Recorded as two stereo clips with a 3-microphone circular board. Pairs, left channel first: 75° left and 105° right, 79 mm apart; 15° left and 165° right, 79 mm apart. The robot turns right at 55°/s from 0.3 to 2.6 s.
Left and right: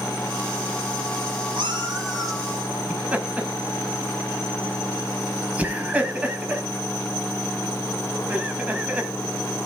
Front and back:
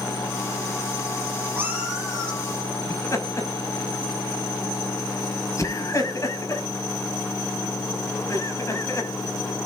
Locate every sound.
1.6 s a cat meowing: 100° right, 7 m; by 2.4 s 55° right, 7 m
2.9 s laughter: 35° right, 5.5 m